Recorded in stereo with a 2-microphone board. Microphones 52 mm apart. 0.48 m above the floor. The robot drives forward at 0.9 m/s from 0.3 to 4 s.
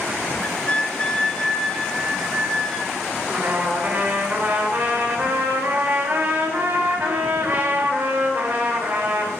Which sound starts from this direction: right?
A trumpet, at 3.3 s.